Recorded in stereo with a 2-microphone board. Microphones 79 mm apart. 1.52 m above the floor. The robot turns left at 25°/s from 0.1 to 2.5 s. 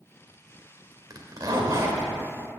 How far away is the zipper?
About 2 m.